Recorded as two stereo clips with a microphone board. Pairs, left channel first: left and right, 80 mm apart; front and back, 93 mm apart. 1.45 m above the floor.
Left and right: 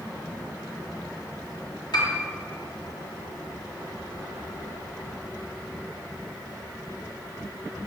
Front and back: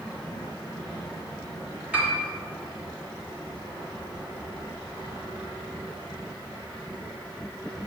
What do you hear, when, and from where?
1.9 s a piano: 105° left, 1.6 m